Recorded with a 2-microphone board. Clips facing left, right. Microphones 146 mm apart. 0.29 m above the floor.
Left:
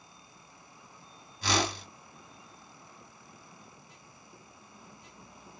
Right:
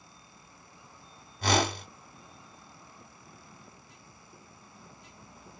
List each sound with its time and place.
1.4 s a whoosh: 55° right (ahead or behind), 1.0 m